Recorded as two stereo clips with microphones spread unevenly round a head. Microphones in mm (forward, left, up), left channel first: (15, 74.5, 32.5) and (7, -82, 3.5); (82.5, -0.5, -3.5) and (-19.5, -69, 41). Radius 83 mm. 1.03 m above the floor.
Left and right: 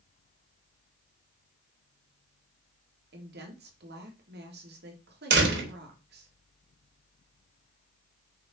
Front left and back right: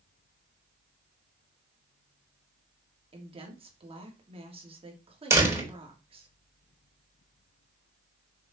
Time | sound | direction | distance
3.1 | a woman speaking | 95° right | 3 m
5.3 | a door slam | 80° right | 4 m